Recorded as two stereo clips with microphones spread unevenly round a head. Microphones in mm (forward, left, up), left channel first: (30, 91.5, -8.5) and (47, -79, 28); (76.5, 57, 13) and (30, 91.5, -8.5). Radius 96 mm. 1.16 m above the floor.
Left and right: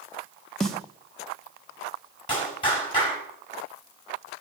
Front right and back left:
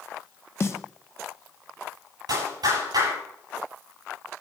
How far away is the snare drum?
About 1.8 m.